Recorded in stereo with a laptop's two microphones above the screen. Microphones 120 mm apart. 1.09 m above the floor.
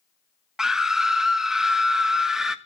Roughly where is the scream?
Centre.